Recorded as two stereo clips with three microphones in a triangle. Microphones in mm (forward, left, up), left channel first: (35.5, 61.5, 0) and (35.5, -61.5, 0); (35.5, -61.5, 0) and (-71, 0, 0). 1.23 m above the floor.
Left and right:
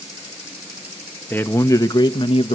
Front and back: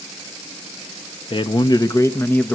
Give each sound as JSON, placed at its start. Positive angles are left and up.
{"t": 1.3, "sound": "a man speaking", "azimuth_deg": 15, "distance_m": 1.4}